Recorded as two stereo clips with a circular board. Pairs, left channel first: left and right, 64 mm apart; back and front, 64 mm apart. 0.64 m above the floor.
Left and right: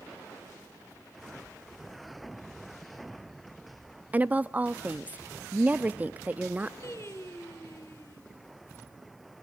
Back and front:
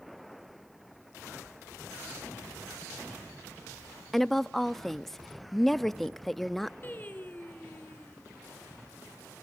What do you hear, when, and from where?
4.1 s a woman speaking: 100° right, 0.5 m
6.8 s singing: 125° left, 2 m